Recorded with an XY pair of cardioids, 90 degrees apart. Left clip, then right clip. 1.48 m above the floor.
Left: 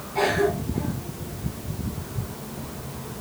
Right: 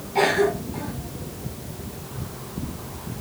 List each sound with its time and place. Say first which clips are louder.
0.1 s a cough: right 2 dB; 70° right, 2.5 m